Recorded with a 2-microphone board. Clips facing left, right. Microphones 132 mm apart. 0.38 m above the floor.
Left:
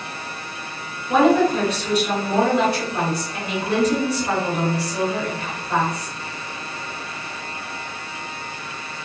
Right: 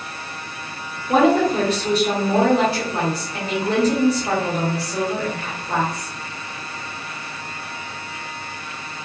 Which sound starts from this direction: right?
A woman speaking, at 1.1 s.